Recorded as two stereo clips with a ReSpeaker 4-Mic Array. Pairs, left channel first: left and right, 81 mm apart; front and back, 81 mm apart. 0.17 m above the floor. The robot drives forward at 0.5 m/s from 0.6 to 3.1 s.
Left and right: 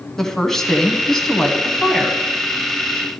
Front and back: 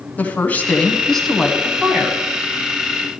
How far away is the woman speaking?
About 1.0 m.